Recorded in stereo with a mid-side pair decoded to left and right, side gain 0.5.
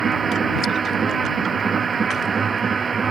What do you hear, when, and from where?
0.0 s a machine running: 35° right